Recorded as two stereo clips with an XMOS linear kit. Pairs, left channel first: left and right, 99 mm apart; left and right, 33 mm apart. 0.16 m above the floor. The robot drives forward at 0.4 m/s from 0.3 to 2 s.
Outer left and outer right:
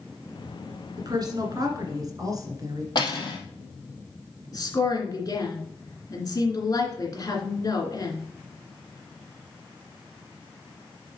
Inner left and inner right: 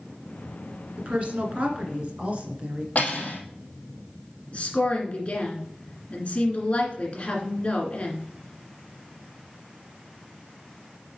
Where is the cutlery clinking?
45° left (ahead or behind), 2.5 m.